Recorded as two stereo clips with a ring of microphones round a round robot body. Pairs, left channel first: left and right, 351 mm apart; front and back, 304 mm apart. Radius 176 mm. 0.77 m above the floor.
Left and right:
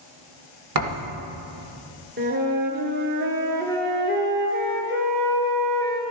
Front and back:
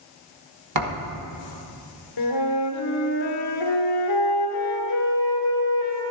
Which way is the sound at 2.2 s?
25° right.